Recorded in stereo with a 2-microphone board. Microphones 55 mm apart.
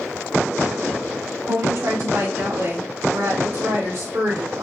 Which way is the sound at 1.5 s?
70° right (ahead or behind).